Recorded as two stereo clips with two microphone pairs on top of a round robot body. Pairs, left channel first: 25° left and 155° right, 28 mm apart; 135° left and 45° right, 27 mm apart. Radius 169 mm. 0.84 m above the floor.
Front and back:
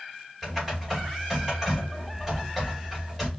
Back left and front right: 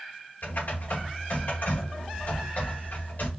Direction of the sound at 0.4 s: 130° left.